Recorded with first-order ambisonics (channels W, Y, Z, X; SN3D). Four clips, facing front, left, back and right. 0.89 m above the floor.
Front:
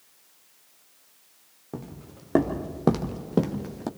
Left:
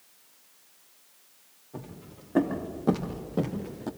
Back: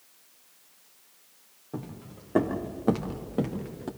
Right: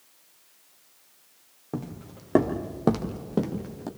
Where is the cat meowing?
I don't hear a cat meowing.